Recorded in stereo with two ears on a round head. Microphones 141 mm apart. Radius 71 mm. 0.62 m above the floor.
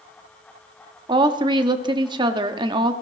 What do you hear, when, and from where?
1.1 s a woman speaking: 30° right (ahead or behind), 0.9 m